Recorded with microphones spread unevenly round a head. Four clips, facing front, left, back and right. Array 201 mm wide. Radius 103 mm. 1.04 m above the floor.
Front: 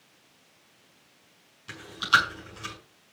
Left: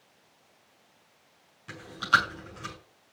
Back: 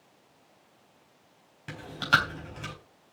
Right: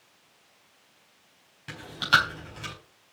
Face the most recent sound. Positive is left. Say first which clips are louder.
# right 1 dB, front 2 dB
turn(degrees=-160)